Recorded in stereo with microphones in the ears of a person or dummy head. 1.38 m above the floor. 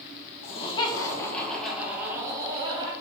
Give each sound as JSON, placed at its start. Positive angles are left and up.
{"t": 0.4, "sound": "laughter", "side_deg": 35, "distance_m": 1.5}